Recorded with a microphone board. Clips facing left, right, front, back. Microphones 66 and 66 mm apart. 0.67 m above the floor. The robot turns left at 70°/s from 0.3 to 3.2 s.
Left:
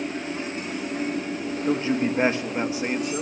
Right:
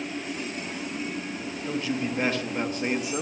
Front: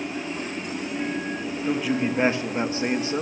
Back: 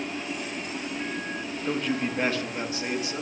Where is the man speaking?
90° left, 0.8 m; by 3.2 s 15° right, 0.8 m.